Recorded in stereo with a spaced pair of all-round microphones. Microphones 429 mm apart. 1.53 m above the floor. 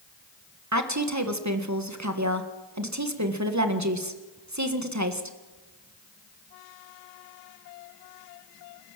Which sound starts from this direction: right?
A woman speaking, at 0.7 s.